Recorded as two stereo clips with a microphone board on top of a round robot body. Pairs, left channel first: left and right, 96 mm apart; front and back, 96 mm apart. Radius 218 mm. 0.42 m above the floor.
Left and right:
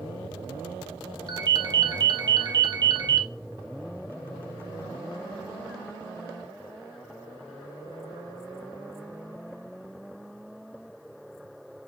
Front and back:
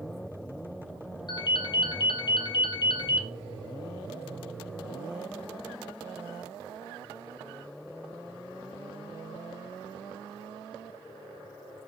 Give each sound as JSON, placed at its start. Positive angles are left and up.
{"t": 1.3, "sound": "a ringtone", "azimuth_deg": -40, "distance_m": 0.8}